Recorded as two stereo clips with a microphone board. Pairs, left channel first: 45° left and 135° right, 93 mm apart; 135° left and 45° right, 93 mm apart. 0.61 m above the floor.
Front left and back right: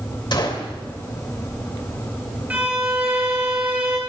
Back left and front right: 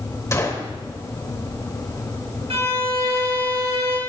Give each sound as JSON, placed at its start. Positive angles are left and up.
{"t": 0.3, "sound": "a gunshot", "azimuth_deg": 80, "distance_m": 2.5}
{"t": 2.5, "sound": "a violin", "azimuth_deg": -60, "distance_m": 4.5}